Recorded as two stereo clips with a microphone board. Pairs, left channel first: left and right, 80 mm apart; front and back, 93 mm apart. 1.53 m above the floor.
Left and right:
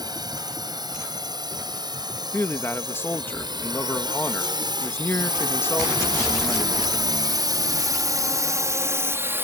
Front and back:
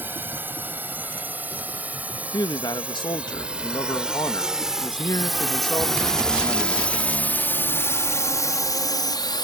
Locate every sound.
0.0 s a drone: 115° right; by 9.4 s 30° right
2.3 s a man speaking: 30° left